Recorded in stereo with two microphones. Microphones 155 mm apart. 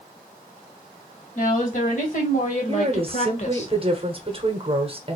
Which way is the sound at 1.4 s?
55° left (ahead or behind).